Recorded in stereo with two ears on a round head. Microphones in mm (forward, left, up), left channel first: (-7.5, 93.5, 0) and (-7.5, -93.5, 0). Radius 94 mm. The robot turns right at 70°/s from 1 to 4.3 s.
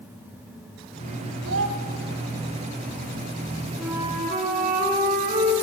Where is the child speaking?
70° right (ahead or behind), 2.5 m; by 1.8 s 65° right (ahead or behind), 2.5 m.